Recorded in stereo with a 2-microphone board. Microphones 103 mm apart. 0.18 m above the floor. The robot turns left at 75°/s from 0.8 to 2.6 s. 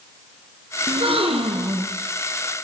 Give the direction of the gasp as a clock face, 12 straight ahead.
2 o'clock.